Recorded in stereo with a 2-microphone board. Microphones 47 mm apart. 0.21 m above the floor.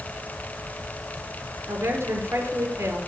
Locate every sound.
1.7 s a woman speaking: 65° right (ahead or behind), 4.5 m